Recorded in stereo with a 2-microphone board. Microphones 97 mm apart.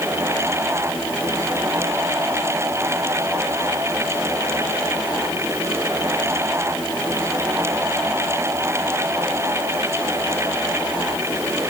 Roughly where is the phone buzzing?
I don't hear a phone buzzing.